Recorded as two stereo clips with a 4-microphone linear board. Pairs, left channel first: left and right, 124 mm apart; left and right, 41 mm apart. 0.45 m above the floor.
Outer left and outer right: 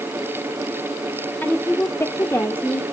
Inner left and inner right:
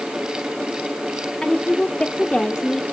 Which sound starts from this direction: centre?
A woman speaking, at 1.4 s.